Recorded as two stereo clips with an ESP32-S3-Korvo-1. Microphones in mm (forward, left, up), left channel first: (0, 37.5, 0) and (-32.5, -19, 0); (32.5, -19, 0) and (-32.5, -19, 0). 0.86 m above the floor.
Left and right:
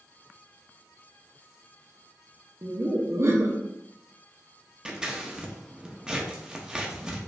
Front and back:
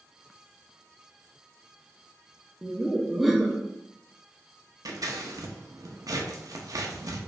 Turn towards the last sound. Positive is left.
turn(degrees=165)